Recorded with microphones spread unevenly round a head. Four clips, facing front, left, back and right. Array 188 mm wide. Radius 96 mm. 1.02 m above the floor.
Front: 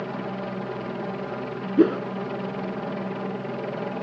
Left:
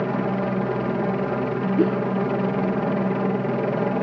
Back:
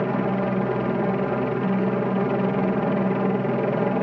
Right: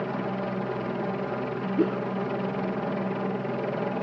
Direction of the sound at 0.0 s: 140° left.